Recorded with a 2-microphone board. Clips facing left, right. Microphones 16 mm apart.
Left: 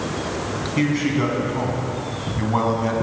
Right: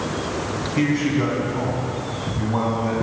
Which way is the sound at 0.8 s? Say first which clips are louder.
Even; 10° left (ahead or behind).